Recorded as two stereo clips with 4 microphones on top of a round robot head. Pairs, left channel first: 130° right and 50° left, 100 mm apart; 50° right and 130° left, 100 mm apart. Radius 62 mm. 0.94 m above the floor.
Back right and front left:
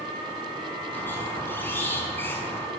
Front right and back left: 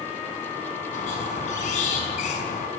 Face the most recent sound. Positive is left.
turn(degrees=-60)